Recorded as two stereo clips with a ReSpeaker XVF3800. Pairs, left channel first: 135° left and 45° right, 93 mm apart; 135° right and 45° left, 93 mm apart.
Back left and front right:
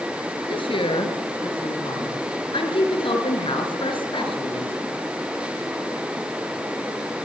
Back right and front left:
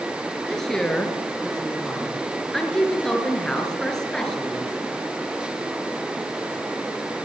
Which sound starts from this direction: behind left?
A woman speaking, at 0.5 s.